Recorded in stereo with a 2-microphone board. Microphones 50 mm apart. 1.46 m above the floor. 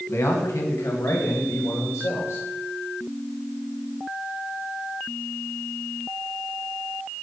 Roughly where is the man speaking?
Left.